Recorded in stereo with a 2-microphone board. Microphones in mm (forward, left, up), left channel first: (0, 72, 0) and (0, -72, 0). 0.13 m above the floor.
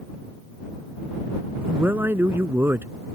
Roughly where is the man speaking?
Centre.